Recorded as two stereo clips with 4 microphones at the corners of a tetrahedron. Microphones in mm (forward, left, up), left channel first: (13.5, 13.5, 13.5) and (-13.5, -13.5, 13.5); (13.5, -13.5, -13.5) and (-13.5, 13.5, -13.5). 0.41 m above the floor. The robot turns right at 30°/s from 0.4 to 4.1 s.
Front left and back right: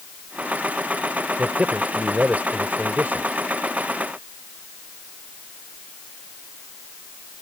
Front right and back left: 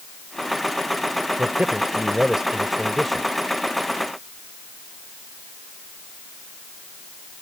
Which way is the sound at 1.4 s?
175° left.